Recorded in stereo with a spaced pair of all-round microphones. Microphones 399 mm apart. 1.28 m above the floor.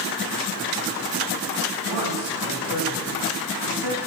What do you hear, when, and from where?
1.9 s a man speaking: 75° left (ahead or behind), 7.5 m